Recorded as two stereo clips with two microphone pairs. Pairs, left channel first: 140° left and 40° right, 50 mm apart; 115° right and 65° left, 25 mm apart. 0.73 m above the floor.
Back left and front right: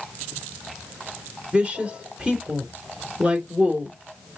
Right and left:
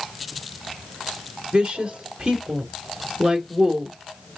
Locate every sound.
1.5 s a woman speaking: 25° left, 3 m